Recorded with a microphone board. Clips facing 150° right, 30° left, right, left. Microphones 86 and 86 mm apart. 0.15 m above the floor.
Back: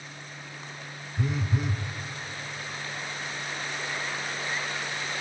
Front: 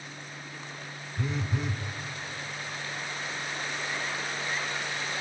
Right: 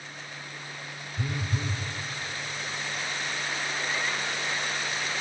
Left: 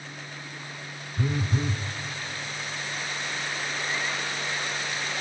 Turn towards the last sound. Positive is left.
turn(degrees=125)